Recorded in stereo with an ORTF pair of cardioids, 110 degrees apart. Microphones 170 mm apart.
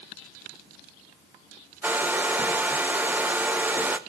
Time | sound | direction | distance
1.8 | a hair dryer | 10° right | 1.1 m